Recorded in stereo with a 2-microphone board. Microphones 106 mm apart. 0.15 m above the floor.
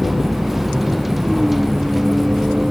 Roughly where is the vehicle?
Centre.